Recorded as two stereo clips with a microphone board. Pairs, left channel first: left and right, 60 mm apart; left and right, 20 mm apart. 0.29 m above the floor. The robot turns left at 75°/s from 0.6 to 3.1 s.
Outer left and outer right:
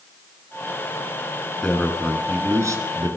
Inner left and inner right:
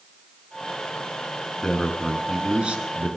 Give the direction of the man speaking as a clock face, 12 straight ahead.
12 o'clock.